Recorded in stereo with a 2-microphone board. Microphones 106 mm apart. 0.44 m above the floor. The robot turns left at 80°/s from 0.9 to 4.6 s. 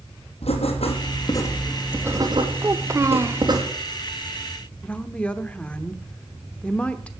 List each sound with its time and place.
0.4 s writing: 70° left, 3.5 m; by 3.6 s 145° right, 3.5 m
2.6 s a child speaking: 25° right (ahead or behind), 0.5 m; by 3.4 s 20° right (ahead or behind), 0.5 m
4.8 s a woman speaking: 10° left (ahead or behind), 1.0 m